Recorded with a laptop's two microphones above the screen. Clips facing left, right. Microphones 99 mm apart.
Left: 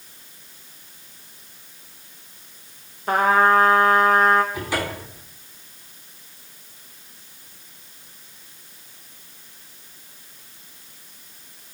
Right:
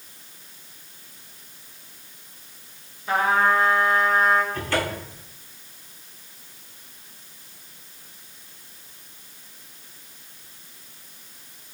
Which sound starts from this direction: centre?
A cupboard door, at 4.5 s.